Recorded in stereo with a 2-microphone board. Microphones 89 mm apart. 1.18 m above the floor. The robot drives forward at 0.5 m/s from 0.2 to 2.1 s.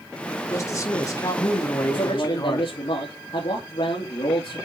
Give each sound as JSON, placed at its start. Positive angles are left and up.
{"t": 0.5, "sound": "a man speaking", "side_deg": 35, "distance_m": 3.0}
{"t": 1.9, "sound": "a man speaking", "side_deg": 75, "distance_m": 2.5}